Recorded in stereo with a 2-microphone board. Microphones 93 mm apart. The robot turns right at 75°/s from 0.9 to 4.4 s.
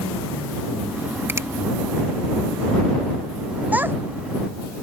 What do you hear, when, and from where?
1.3 s a finger snap: 25° right (ahead or behind); by 1.5 s 35° right (ahead or behind)
3.7 s a child speaking: 15° right (ahead or behind); by 4.0 s 25° right (ahead or behind)